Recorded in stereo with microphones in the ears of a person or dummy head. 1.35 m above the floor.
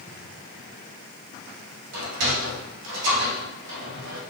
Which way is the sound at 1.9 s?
60° right (ahead or behind).